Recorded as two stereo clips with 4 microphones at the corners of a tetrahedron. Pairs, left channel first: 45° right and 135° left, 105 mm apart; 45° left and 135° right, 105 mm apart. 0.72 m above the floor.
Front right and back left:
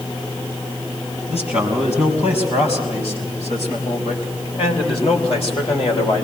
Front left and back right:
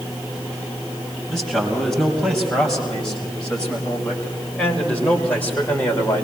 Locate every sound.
1.3 s a man speaking: 45° right, 6 m; by 6.2 s 25° right, 3.5 m